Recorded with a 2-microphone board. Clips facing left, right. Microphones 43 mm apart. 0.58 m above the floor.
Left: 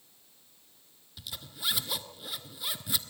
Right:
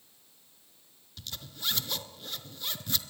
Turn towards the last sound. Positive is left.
turn(degrees=10)  # may be behind; listen again after turning